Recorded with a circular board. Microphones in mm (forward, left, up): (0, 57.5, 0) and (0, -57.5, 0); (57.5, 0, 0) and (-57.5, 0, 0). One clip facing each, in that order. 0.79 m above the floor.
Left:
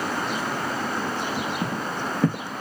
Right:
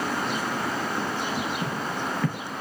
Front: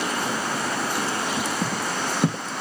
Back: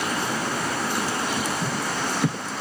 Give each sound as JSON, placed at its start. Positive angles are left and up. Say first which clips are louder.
{"t": 1.6, "sound": "footsteps", "louder": "left 1 dB, even", "azimuth_deg": 40, "distance_m": 1.8}